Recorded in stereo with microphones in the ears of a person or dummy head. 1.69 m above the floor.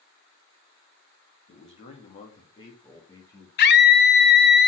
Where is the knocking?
I don't hear knocking.